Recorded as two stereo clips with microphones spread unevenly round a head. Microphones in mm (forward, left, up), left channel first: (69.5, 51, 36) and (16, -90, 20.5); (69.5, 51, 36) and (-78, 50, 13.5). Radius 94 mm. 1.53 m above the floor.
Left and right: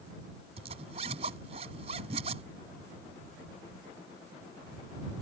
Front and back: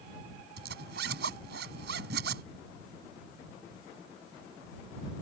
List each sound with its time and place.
0.6 s a zipper: 170° right